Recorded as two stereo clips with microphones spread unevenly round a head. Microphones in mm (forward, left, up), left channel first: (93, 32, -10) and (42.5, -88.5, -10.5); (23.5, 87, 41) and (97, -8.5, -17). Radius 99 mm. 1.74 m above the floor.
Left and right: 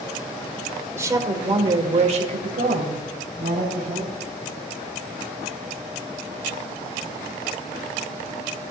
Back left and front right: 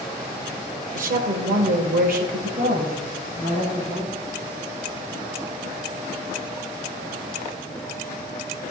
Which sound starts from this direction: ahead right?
A woman speaking, at 0.9 s.